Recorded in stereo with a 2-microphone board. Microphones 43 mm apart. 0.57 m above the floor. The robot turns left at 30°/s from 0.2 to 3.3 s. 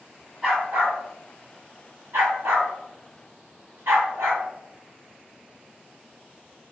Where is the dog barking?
15° right (ahead or behind), 1.7 m; by 4.4 s 75° right (ahead or behind), 1.7 m.